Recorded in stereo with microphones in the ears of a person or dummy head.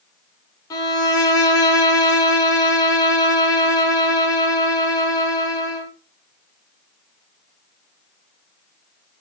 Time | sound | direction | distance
0.7 | a violin | 20° left (ahead or behind) | 0.7 m